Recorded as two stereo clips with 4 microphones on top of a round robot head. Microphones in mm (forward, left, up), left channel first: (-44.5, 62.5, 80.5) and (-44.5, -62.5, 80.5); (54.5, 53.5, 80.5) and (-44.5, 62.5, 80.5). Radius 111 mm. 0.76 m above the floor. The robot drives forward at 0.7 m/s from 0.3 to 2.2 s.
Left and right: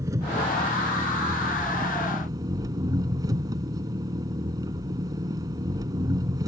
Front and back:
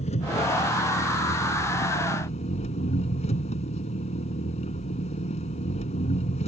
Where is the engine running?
20° right; by 6.5 s 25° right.